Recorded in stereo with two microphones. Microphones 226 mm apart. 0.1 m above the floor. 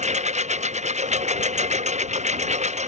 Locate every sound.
0.0 s a lawn mower: 30° right (ahead or behind)